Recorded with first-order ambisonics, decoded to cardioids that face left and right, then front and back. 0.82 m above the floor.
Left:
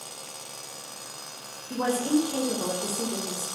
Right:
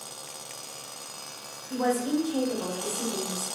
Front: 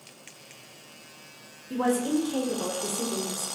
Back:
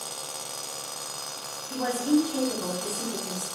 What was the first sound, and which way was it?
A woman speaking, 35° left.